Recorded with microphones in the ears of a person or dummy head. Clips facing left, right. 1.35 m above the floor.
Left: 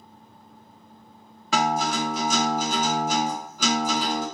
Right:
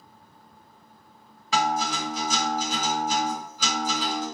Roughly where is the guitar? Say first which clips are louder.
Left 2 dB; left.